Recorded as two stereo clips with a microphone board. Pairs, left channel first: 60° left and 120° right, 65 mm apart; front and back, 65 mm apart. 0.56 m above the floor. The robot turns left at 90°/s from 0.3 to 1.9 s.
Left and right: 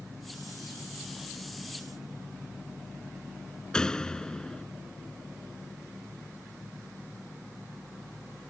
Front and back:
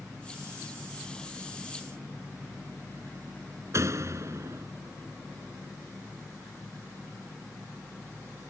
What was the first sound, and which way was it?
A door slam, 140° left.